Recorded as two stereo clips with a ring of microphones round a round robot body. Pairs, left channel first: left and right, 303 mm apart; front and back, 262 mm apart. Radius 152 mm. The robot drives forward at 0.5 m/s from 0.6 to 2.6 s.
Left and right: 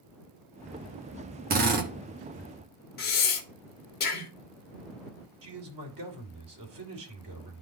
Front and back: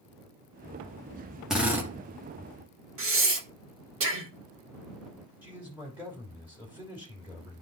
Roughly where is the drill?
Right.